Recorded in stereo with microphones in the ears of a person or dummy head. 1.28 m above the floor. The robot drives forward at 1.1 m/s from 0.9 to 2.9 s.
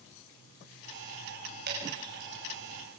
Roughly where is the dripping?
Right.